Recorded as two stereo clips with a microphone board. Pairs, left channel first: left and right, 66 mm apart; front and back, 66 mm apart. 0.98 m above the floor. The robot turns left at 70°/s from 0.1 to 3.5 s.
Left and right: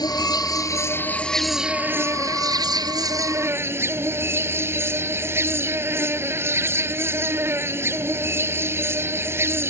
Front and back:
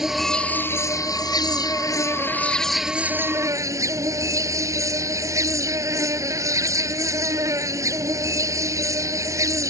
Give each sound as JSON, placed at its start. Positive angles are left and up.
{"t": 0.0, "sound": "an insect", "azimuth_deg": 95}